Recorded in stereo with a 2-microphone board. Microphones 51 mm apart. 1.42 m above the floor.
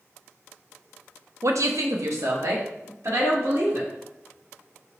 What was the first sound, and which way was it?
A woman speaking, 70° right (ahead or behind).